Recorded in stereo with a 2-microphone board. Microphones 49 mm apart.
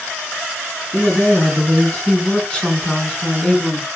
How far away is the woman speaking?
About 5.5 m.